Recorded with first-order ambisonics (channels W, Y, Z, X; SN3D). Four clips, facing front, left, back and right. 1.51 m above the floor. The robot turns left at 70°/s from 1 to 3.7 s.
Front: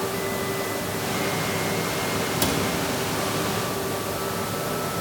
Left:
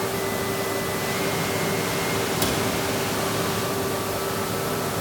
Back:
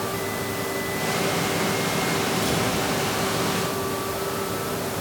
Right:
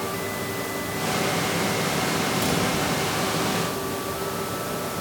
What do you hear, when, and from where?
2.4 s a cupboard door: 30° left, 3.5 m; by 2.6 s 10° left, 3.5 m